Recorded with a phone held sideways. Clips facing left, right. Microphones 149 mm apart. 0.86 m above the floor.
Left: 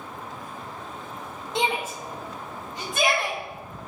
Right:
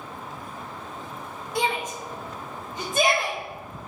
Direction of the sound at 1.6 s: 25° left (ahead or behind).